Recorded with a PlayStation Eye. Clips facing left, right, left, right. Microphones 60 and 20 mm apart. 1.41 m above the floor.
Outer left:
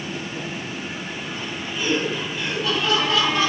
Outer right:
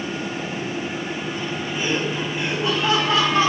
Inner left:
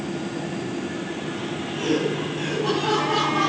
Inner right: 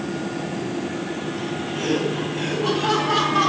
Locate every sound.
1.8 s laughter: 25° right (ahead or behind), 7 m; by 3.5 s 30° right (ahead or behind), 4.5 m